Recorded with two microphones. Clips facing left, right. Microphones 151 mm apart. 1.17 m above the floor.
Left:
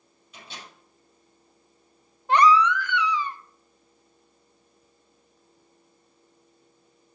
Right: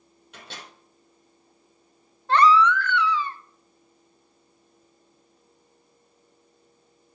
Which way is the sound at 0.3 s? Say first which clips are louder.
Right 1 dB; 65° right (ahead or behind).